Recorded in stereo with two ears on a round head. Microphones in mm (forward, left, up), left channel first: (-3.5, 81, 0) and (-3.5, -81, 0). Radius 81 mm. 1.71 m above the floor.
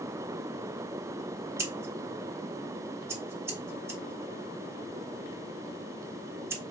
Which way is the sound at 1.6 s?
15° right (ahead or behind).